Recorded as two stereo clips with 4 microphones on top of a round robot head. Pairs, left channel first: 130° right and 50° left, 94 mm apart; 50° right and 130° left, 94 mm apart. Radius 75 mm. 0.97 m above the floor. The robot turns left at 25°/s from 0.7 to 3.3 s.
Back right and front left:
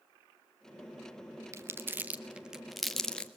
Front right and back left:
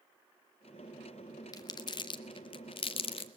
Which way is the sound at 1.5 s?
5° right.